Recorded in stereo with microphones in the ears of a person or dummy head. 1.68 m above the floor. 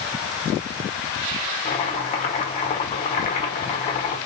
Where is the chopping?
35° left (ahead or behind), 1.0 m.